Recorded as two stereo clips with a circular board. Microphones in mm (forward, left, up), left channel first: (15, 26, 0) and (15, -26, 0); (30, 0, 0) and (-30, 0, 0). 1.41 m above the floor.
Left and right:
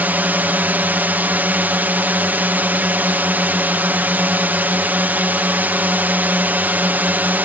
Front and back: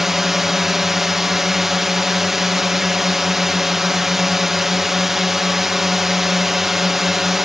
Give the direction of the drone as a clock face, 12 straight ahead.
3 o'clock.